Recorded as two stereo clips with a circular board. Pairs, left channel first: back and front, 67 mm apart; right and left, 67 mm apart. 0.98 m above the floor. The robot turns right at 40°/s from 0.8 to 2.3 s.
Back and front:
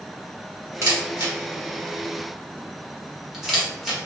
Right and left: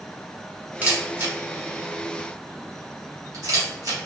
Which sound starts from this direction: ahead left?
A camera shutter, at 0.8 s.